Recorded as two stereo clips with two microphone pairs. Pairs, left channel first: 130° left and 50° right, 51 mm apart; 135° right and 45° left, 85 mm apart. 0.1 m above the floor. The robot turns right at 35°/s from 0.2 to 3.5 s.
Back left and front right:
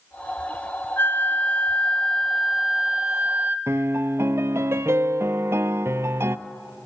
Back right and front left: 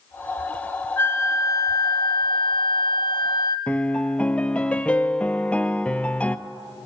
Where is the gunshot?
I don't hear a gunshot.